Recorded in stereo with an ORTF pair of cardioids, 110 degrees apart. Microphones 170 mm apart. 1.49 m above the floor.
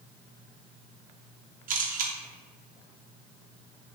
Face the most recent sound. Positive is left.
turn(degrees=-55)